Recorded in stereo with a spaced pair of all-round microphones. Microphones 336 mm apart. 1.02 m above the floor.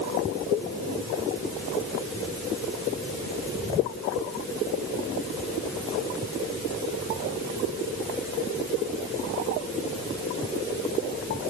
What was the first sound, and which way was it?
Only background noise.